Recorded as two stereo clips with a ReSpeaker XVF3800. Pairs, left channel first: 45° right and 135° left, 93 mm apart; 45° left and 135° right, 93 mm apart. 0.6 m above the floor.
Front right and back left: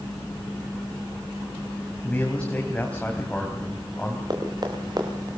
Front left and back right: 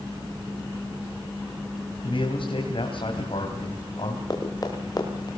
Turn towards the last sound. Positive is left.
turn(degrees=90)